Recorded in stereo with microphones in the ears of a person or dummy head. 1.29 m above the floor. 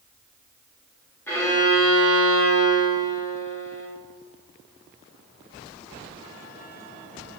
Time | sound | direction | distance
1.3 | a violin | 15° left (ahead or behind) | 1.6 m